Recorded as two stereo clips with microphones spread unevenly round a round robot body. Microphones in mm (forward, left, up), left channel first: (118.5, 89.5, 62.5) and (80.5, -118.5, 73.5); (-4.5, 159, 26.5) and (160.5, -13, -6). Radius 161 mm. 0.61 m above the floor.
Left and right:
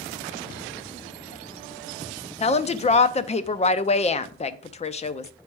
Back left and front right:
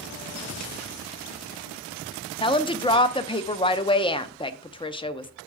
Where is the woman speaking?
65° left, 0.6 m.